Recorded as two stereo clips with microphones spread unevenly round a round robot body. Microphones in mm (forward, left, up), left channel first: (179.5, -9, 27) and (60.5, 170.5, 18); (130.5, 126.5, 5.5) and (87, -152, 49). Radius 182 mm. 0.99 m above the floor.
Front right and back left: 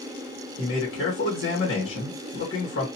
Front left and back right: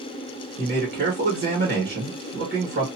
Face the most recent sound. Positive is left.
turn(degrees=-35)